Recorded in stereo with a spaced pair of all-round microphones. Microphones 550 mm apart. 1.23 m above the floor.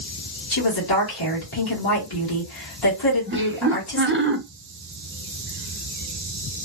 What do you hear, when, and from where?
0.5 s a woman speaking: 45° left (ahead or behind), 1.6 m
3.3 s laughter: 20° right (ahead or behind), 0.6 m